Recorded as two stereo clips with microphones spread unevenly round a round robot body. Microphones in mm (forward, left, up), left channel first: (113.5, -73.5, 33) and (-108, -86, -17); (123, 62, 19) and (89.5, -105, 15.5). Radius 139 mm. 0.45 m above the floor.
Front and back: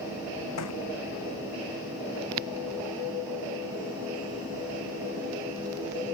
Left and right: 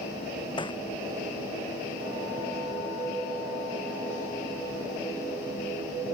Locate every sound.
0.6 s a thud: 15° left